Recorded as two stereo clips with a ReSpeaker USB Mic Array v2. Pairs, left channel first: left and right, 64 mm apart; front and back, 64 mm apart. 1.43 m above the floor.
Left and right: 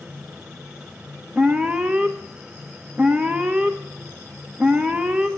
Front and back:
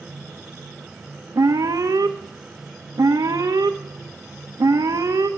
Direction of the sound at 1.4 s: 160° right.